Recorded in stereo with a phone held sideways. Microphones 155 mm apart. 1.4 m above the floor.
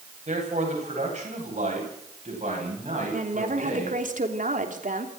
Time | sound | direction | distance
0.3 | a man speaking | 55° right (ahead or behind) | 10 m
3.1 | a woman speaking | 65° right (ahead or behind) | 3 m